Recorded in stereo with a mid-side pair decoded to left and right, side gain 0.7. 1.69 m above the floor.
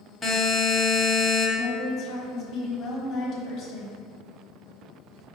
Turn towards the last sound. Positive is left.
turn(degrees=50)